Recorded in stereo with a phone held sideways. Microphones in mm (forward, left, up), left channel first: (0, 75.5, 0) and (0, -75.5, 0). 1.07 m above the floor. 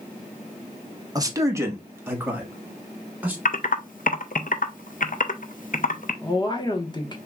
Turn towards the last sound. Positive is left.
turn(degrees=30)  # may be behind; listen again after turning